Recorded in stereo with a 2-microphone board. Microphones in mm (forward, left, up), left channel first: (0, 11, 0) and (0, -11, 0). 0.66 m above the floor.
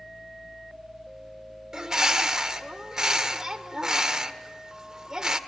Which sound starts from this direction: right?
A bird, at 1.7 s.